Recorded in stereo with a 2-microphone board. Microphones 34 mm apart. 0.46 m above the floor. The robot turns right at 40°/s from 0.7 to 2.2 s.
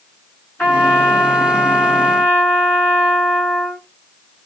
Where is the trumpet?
65° left, 2.5 m; by 3.9 s 125° left, 2.5 m.